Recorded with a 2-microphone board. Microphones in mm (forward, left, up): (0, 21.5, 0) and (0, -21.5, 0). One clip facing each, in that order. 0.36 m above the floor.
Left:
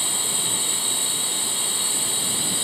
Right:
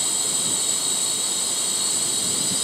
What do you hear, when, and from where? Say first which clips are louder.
0.0 s a drone: left 1 dB; 20° left (ahead or behind)